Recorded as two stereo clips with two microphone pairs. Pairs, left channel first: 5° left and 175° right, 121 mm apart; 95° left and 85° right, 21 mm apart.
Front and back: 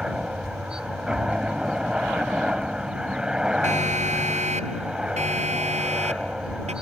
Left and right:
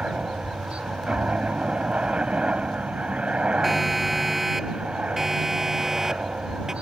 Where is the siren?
170° right; by 6.7 s 155° right.